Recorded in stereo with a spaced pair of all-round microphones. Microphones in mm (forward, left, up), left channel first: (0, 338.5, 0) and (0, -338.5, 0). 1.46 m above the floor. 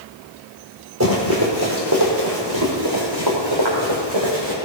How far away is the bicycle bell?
I don't hear a bicycle bell.